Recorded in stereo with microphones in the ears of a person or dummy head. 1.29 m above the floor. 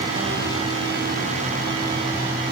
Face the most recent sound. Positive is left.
No sound to turn to.